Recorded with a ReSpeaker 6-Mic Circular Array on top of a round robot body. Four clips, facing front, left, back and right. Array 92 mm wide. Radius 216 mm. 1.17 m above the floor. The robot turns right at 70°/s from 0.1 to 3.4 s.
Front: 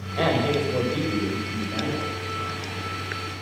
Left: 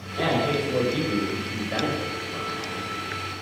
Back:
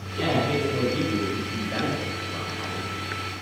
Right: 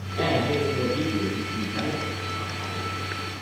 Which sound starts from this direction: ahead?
A man speaking, at 0.2 s.